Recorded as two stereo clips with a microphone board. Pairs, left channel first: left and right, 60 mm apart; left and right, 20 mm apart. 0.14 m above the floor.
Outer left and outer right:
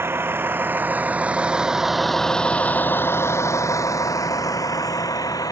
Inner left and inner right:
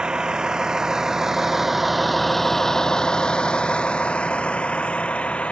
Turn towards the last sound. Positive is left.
turn(degrees=80)